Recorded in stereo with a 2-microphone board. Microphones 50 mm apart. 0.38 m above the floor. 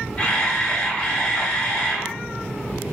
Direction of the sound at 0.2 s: 20° left (ahead or behind).